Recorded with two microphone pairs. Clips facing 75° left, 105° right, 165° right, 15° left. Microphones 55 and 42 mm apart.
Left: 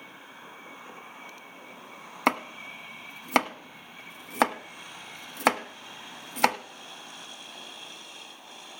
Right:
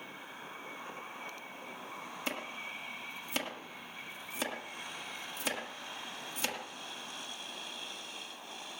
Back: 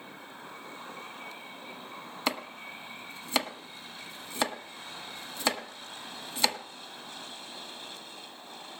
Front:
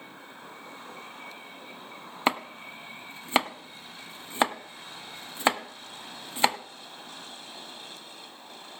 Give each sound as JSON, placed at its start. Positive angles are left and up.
{"t": 2.3, "sound": "chopping", "azimuth_deg": 75, "distance_m": 1.0}